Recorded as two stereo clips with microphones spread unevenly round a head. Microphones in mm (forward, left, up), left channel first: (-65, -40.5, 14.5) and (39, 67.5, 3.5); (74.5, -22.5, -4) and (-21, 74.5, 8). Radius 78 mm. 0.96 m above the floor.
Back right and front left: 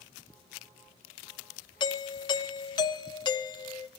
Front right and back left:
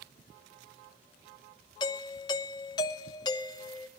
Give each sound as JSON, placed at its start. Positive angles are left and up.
{"t": 1.8, "sound": "a doorbell", "azimuth_deg": -80, "distance_m": 0.9}